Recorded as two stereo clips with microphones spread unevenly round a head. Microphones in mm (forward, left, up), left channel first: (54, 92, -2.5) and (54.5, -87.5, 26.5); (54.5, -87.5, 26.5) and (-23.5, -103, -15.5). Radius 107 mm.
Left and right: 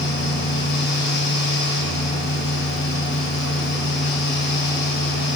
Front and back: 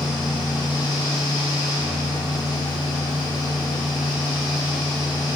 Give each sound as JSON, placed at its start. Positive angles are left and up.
{"t": 0.0, "sound": "a fan", "azimuth_deg": 70, "distance_m": 2.0}